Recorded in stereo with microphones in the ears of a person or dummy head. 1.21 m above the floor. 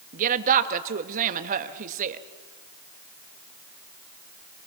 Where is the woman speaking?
45° right (ahead or behind), 1.5 m.